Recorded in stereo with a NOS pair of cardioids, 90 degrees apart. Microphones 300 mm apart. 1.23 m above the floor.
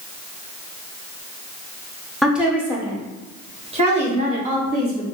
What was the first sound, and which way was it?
A woman speaking, straight ahead.